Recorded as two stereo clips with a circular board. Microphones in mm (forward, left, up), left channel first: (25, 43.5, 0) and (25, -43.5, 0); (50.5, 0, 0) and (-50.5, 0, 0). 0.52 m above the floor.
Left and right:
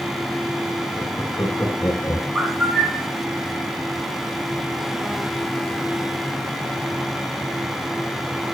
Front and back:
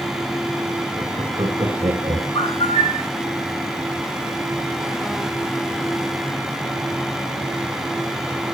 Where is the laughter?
135° left, 3 m; by 2.2 s 145° left, 4 m.